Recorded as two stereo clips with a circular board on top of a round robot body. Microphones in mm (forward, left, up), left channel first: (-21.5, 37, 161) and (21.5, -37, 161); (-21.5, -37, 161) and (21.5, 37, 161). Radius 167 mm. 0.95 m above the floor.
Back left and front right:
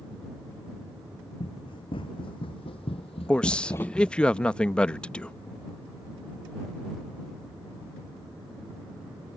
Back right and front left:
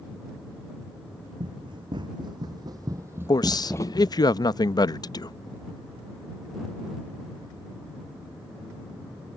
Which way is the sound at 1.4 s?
90° left.